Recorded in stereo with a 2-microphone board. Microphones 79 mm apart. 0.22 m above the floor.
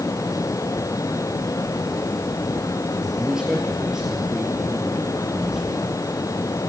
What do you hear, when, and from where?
3.2 s a man speaking: 10° right (ahead or behind), 4.5 m; by 6.1 s centre (ahead or behind), 6.5 m